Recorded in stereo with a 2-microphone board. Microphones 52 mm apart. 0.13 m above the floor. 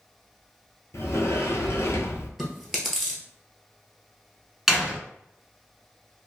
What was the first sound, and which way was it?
A sliding door, 65° left (ahead or behind).